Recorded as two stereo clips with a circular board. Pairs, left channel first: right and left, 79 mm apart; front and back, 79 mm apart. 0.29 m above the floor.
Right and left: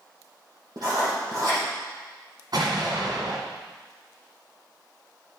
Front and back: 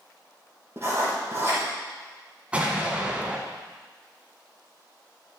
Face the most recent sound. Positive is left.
turn(degrees=105)